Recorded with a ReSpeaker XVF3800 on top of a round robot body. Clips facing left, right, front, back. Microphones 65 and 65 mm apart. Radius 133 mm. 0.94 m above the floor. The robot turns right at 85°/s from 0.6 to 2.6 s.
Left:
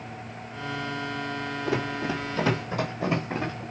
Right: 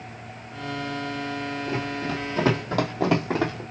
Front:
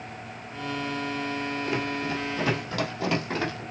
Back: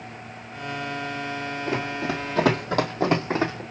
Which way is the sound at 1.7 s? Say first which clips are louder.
Left 3 dB, back 4 dB; 115° left.